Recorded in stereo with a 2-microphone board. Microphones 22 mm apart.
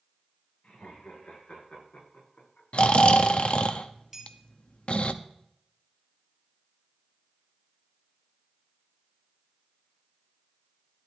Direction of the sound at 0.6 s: 75° left (ahead or behind).